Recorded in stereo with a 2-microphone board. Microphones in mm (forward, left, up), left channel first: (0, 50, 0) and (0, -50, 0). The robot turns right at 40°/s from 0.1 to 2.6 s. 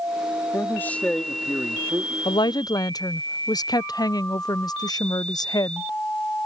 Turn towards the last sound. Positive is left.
turn(degrees=40)  # may be behind; listen again after turning